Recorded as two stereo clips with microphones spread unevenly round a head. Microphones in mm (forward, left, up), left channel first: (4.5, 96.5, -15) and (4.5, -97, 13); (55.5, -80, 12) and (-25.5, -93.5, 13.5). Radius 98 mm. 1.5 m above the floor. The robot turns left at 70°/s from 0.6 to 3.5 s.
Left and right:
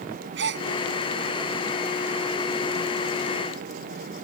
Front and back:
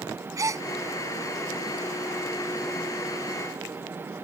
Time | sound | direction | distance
0.4 | a gasp | 120° right | ?